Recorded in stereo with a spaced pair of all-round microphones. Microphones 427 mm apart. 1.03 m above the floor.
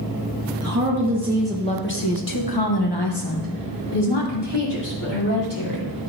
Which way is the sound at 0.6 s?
35° right (ahead or behind).